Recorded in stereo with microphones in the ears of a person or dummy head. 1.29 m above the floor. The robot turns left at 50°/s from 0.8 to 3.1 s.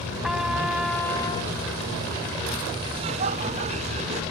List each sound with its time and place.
0.2 s a trumpet: 175° right; by 1.6 s 150° left
2.9 s laughter: 20° right (ahead or behind); by 4.2 s 30° right (ahead or behind)